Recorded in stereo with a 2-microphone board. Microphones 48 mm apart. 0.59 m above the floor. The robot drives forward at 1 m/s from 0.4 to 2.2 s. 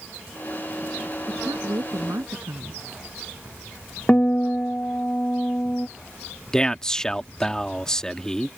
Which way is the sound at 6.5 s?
15° left (ahead or behind).